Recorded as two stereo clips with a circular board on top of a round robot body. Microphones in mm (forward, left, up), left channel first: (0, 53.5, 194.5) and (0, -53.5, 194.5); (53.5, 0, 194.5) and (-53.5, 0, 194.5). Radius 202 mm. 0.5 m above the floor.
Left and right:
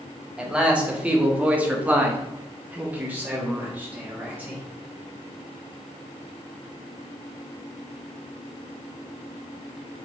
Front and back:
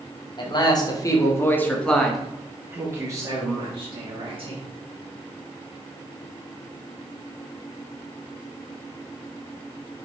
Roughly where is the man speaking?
Ahead.